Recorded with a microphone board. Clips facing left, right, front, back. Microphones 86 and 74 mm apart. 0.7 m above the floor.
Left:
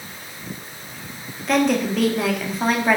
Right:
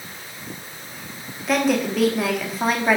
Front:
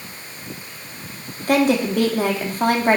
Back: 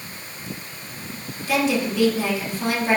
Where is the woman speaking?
5° right, 1.4 m.